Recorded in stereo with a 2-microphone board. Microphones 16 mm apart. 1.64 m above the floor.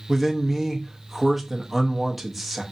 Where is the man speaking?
Centre (ahead or behind), 0.6 m.